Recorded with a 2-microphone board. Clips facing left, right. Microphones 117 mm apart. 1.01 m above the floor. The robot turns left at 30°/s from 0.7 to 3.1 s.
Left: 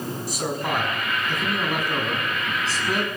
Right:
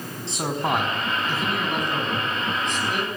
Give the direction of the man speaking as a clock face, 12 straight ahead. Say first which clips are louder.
Right 3 dB; 5 o'clock.